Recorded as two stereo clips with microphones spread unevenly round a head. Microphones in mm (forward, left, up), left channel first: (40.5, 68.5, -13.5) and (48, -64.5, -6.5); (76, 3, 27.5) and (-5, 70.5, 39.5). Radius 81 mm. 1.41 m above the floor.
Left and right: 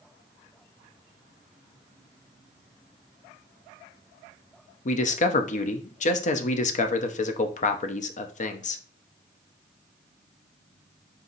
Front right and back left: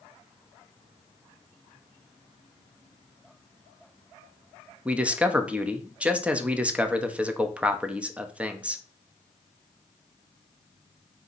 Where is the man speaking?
60° left, 0.7 m.